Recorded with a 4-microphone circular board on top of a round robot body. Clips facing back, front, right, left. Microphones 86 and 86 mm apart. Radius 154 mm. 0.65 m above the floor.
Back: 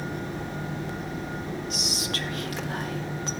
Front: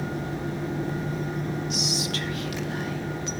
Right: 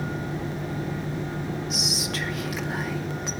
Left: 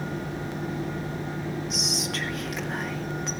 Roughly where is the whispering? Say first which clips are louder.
Front 3 dB, right 1 dB; behind.